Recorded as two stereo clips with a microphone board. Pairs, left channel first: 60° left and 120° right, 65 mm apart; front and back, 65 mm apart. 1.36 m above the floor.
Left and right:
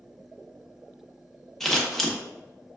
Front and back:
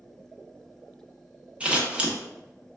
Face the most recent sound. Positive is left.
turn(degrees=140)